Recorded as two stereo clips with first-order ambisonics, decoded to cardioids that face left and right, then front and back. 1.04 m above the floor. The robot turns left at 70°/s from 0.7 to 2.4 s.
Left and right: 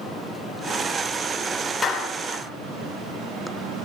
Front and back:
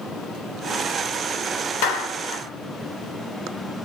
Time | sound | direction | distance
1.8 | a clap | 15° left | 3.5 m